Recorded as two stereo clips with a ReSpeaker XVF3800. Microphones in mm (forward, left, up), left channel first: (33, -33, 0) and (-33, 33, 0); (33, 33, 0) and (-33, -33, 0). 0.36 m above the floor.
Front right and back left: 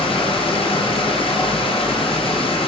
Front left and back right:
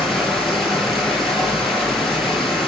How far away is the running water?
About 5.5 m.